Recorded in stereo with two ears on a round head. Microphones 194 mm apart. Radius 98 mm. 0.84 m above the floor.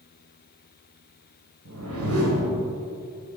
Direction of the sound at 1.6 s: 70° right (ahead or behind).